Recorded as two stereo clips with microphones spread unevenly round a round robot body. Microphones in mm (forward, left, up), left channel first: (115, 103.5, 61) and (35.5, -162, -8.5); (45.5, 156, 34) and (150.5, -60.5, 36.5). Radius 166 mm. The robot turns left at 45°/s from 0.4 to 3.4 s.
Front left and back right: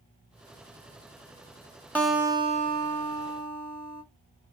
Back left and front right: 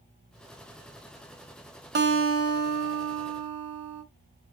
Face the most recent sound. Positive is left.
turn(degrees=-80)